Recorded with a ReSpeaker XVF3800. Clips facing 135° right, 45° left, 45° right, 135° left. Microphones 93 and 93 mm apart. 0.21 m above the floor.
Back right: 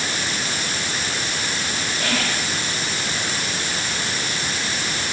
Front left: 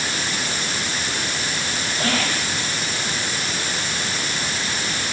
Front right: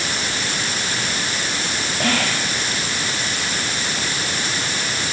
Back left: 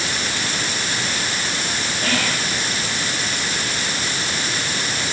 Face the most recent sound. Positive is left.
turn(degrees=-15)